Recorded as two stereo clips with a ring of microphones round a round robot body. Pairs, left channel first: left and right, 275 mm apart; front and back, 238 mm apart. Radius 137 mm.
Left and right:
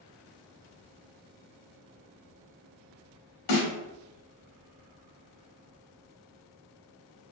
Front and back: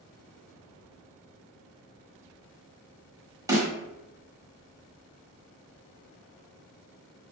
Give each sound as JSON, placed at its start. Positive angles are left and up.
{"t": 3.5, "sound": "a snare drum", "azimuth_deg": 105, "distance_m": 1.1}